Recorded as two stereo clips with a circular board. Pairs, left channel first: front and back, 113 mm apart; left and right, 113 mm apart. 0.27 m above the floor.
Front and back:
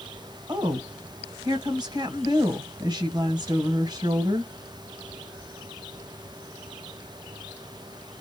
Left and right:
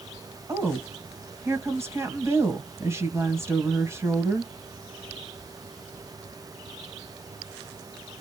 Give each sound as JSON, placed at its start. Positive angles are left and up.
{"t": 0.5, "sound": "a woman speaking", "azimuth_deg": -145, "distance_m": 1.2}